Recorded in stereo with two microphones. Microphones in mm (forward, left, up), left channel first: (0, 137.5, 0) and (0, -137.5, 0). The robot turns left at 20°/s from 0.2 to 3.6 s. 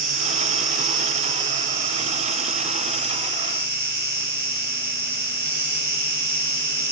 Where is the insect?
80° right, 2 m; by 6.9 s 145° right, 2 m.